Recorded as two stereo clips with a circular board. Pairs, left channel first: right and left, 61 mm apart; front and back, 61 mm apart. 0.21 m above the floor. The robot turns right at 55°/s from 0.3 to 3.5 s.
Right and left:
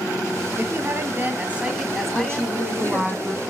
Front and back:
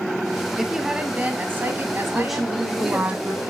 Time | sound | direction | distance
0.6 | a woman speaking | 100° left | 1.2 m
2.1 | a woman speaking | 90° left | 1.3 m